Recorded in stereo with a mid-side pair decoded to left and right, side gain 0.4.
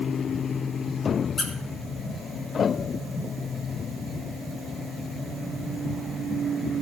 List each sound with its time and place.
1.4 s a squeak: 50° left, 2.5 m